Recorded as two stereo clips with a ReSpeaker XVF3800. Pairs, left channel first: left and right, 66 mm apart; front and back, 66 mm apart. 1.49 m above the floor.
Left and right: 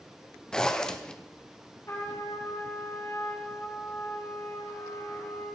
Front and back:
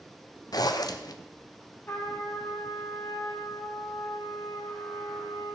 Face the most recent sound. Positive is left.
turn(degrees=55)